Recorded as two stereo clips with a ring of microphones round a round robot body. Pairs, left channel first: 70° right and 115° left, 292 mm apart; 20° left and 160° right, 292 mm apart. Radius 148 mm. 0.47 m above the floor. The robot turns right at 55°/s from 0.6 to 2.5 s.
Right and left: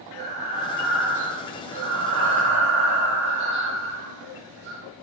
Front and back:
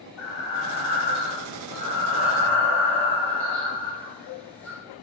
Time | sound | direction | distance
0.2 | breathing | straight ahead | 3.5 m